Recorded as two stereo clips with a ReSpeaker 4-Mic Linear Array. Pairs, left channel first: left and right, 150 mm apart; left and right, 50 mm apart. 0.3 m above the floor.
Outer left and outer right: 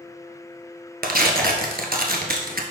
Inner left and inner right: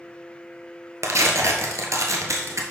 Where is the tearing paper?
90° right, 1.0 m.